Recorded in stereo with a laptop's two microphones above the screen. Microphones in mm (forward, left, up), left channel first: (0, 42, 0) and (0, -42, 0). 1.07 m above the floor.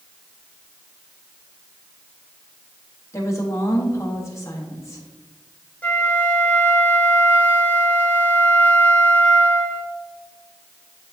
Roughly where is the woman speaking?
Left.